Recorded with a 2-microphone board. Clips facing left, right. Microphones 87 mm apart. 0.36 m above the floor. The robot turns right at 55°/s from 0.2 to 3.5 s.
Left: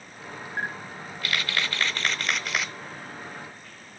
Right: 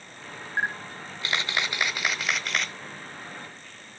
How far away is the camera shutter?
About 0.6 m.